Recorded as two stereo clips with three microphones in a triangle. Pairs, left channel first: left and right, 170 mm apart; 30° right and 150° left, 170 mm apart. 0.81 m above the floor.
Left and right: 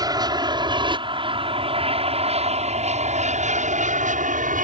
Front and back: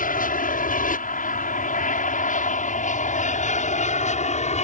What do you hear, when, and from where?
0.0 s an aircraft: 30° right; by 4.7 s 70° right